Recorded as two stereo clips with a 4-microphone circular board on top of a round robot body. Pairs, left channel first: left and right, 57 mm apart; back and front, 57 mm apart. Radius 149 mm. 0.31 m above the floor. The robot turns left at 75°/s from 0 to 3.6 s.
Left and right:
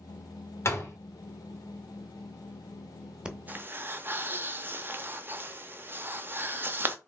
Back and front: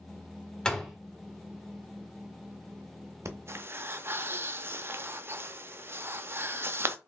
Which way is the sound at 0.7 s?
110° left.